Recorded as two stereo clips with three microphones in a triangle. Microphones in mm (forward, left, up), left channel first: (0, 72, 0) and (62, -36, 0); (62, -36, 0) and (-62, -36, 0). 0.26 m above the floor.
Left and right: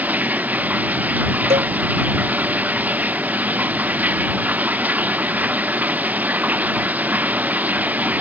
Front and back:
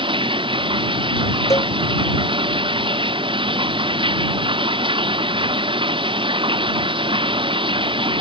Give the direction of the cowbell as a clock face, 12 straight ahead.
2 o'clock.